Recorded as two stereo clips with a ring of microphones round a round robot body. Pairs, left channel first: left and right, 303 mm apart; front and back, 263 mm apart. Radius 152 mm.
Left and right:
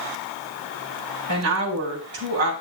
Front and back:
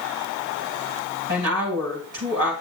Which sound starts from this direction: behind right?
A woman speaking, at 1.3 s.